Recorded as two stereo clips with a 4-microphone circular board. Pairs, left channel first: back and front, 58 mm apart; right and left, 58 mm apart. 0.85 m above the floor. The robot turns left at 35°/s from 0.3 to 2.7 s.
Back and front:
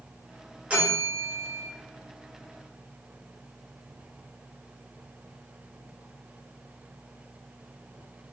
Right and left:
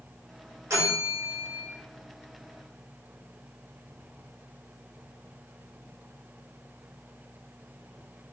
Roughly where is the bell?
Ahead left.